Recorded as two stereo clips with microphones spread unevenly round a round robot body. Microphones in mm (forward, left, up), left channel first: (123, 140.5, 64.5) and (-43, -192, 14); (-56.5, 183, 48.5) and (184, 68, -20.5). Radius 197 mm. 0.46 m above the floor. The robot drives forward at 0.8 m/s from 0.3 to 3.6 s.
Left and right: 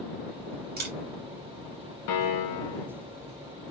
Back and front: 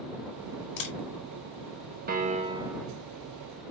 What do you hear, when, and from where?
0.8 s a camera shutter: 175° left, 1.2 m
2.1 s a piano: 25° left, 1.0 m; by 2.9 s 60° left, 0.6 m